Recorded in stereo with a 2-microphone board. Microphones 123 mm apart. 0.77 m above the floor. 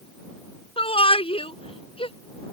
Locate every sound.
0.8 s a shout: 50° left (ahead or behind)